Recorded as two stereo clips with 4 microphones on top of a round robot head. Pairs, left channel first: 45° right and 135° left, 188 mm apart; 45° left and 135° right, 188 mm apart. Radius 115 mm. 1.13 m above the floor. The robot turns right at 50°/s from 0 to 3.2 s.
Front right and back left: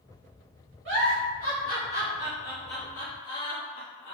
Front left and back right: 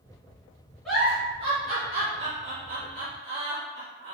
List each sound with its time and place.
0.8 s a giggle: 135° left, 2.0 m; by 4.2 s 110° right, 2.0 m